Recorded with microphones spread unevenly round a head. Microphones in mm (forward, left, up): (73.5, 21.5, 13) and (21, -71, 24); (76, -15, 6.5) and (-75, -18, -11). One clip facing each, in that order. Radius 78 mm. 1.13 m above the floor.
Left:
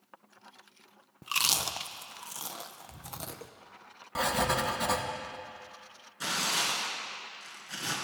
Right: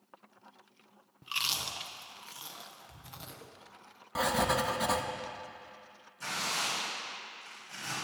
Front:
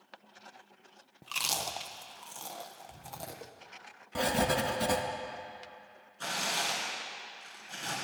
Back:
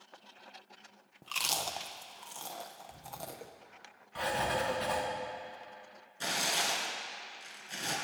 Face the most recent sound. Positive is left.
turn(degrees=105)